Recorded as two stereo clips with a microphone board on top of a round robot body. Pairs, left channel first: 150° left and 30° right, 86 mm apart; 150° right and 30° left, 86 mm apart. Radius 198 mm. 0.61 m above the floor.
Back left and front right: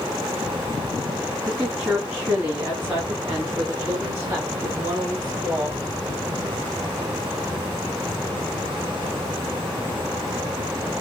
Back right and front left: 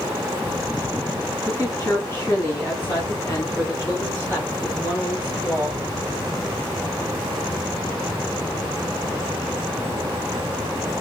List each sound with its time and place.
1.5 s a woman speaking: 95° right, 2 m; by 5.8 s 80° right, 4 m